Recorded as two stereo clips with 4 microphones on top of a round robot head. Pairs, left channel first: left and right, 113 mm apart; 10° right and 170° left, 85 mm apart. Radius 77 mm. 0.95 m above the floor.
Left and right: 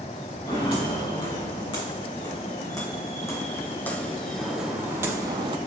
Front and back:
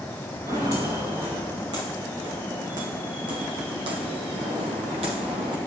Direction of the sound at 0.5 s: 135° left.